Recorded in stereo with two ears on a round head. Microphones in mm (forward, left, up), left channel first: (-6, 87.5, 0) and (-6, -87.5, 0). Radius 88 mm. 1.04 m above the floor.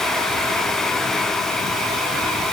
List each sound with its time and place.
Only background noise.